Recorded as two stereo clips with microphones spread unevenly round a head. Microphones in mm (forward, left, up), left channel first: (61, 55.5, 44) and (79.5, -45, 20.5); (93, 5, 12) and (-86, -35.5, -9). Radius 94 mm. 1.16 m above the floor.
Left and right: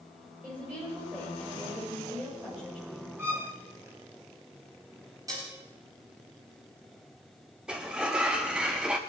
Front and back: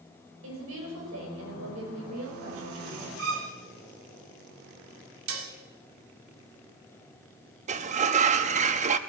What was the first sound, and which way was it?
A woman speaking, 160° right.